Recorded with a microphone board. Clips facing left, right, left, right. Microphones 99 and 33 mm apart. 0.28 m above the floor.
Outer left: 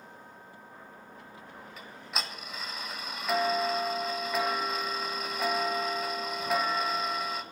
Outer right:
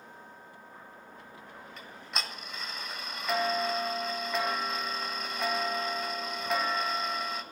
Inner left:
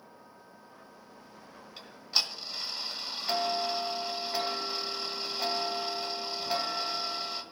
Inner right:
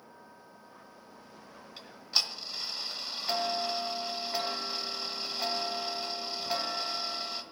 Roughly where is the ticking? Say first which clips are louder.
Outer left 1 dB, even; centre.